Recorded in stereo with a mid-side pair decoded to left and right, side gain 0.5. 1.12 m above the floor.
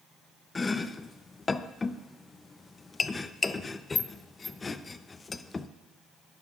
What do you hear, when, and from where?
0.6 s chopping: 25° left, 0.6 m